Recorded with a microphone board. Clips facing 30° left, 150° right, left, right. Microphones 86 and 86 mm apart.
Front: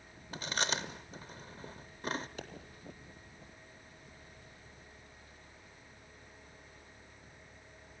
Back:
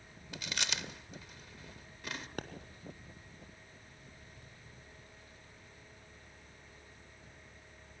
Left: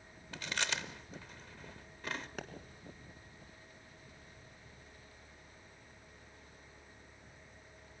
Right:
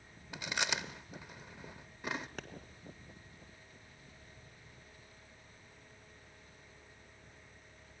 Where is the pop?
Straight behind, 1.7 m.